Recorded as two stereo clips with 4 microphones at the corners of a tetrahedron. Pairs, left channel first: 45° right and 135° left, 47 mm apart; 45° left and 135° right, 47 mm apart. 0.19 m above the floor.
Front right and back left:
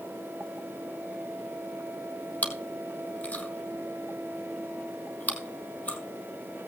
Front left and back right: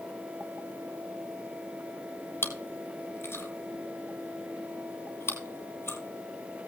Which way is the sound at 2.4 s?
15° left.